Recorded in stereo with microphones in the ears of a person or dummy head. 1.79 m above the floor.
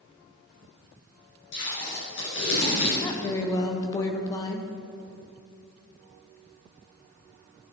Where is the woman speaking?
25° left (ahead or behind), 0.9 m.